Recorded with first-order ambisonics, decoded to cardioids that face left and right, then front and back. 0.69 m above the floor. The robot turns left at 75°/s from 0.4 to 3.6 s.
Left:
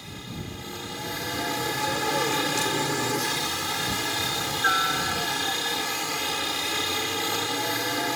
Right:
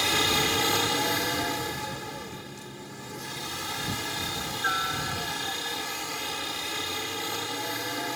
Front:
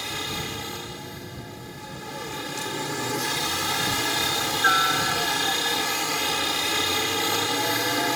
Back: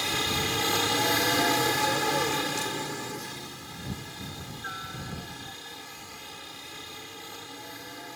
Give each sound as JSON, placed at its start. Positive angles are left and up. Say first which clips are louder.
{"t": 0.0, "sound": "a helicopter", "louder": "right 16 dB, back 3 dB", "azimuth_deg": -100}